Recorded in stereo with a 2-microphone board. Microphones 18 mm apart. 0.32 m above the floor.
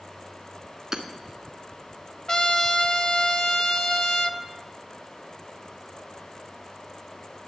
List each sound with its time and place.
0.9 s hammering: 20° right (ahead or behind), 1.0 m
2.3 s a trumpet: 40° left (ahead or behind), 0.6 m